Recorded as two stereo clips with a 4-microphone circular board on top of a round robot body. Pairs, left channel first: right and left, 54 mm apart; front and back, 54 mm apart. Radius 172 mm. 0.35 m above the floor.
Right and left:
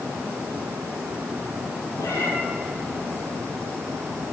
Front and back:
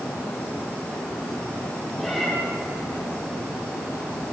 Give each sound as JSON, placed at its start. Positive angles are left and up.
{"t": 2.0, "sound": "a cat meowing", "azimuth_deg": -90, "distance_m": 8.5}